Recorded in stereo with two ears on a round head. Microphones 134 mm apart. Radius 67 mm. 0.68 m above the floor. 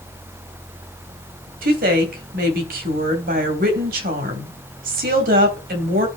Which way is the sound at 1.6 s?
65° right (ahead or behind).